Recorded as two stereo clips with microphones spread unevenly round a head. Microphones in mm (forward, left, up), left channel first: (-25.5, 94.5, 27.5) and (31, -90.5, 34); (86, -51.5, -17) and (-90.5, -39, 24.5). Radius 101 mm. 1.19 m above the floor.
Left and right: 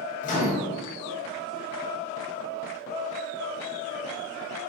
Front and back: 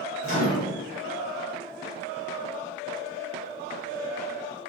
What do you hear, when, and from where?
0.2 s a microwave: 55° left, 0.8 m